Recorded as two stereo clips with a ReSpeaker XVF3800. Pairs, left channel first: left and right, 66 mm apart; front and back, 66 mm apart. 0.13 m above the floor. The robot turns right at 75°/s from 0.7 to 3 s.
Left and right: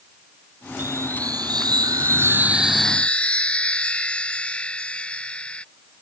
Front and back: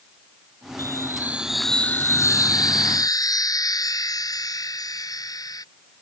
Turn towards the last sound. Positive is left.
turn(degrees=15)